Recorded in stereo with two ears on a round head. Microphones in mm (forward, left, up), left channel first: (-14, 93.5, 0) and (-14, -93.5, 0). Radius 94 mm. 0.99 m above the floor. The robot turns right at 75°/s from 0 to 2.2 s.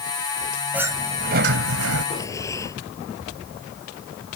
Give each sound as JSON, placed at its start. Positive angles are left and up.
{"t": 0.7, "sound": "a sliding door", "azimuth_deg": -175}
{"t": 2.1, "sound": "breathing", "side_deg": 20}